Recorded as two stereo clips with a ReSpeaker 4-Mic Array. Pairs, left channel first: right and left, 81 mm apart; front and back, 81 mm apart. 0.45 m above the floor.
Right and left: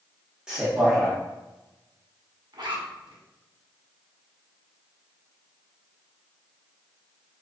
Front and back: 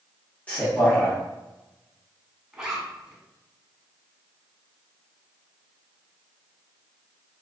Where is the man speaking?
30° left, 0.7 m.